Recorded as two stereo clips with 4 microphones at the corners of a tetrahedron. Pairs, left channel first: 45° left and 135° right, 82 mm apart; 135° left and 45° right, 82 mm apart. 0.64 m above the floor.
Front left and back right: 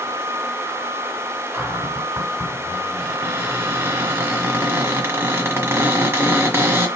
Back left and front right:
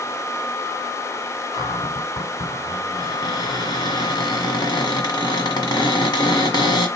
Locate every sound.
1.5 s a cupboard door: 165° left, 1.4 m